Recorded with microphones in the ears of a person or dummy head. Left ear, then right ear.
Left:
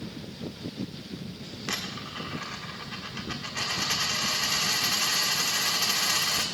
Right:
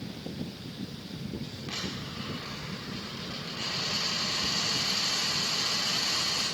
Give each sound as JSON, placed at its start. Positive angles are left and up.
{"t": 1.7, "sound": "a dropped coin", "side_deg": 45, "distance_m": 1.6}